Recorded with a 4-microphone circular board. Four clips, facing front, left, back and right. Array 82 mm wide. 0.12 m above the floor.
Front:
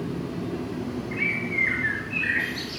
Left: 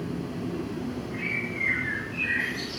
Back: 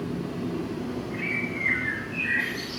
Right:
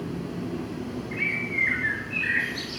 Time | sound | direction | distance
1.1 | a bird | 30° right | 5.5 m